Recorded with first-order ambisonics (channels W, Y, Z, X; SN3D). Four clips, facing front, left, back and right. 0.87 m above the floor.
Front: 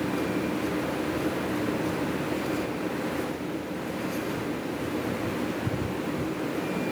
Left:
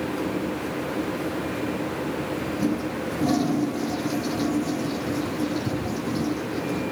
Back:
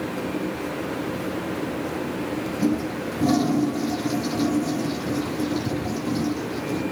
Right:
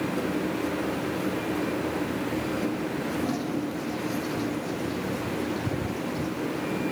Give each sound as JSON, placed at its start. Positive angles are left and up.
{"t": 2.6, "sound": "a toilet flushing", "azimuth_deg": 155}